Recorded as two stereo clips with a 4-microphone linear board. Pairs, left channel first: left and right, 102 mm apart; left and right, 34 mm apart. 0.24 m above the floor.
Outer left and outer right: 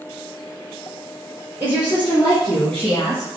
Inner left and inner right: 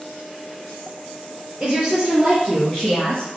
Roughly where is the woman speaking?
Centre.